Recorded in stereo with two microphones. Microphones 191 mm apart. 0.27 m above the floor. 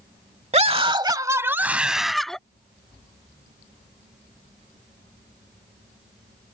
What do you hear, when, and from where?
0.5 s a scream: 35° right (ahead or behind); by 2.4 s 5° left (ahead or behind)